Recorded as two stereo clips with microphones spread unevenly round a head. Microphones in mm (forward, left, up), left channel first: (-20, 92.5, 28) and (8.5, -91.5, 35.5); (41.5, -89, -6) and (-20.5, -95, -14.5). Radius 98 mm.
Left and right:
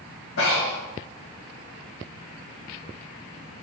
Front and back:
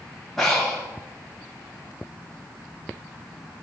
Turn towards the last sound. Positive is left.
turn(degrees=90)